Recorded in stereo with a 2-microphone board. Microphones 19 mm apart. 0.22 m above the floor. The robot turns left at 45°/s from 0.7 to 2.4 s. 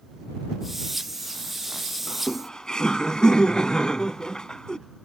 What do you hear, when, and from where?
2.1 s laughter: 40° left (ahead or behind); by 4.8 s 50° left (ahead or behind)